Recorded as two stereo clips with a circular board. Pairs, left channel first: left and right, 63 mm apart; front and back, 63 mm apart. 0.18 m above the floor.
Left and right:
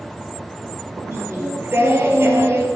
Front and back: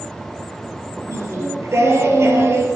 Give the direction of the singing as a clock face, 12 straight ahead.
5 o'clock.